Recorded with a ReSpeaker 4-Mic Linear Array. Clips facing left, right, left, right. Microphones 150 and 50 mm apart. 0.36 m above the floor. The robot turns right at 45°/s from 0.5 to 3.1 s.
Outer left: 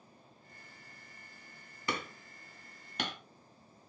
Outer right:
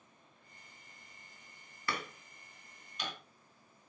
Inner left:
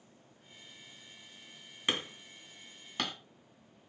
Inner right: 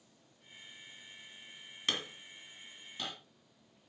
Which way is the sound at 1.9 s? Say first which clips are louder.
Outer left 2 dB, inner left 2 dB; 20° left (ahead or behind).